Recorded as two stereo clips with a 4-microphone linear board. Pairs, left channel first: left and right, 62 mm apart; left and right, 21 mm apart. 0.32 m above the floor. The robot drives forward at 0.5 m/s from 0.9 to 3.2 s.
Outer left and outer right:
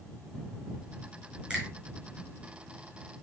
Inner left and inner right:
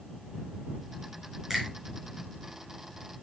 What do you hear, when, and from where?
1.5 s a finger snap: 25° right (ahead or behind), 5 m